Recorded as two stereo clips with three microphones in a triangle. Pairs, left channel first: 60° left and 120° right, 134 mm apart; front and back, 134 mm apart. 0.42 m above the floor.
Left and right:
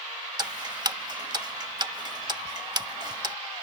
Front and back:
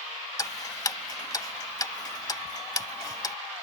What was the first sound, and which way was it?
Ticking, 60° right.